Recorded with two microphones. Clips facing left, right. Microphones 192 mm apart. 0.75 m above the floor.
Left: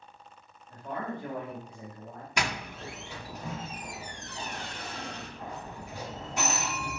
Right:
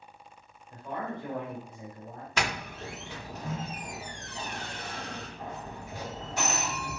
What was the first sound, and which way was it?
A man speaking, 55° left (ahead or behind).